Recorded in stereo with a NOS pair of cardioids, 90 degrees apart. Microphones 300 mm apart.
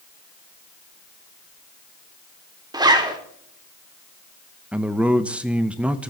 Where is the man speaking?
5° right, 0.9 m.